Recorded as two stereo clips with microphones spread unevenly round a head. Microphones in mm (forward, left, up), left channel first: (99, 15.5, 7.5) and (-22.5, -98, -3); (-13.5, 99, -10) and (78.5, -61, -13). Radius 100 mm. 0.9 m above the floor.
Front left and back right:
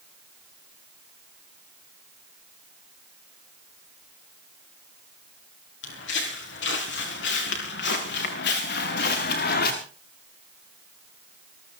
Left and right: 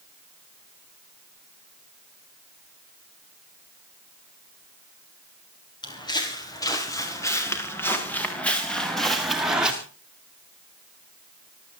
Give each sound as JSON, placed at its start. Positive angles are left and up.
{"t": 5.8, "sound": "footsteps", "azimuth_deg": 55, "distance_m": 7.0}